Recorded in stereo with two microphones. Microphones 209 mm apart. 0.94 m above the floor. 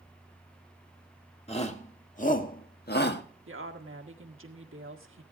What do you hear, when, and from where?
1.5 s a shout: 30° left (ahead or behind), 1.8 m; by 3.2 s 55° left (ahead or behind), 1.2 m
3.5 s a woman speaking: 75° right (ahead or behind), 1.5 m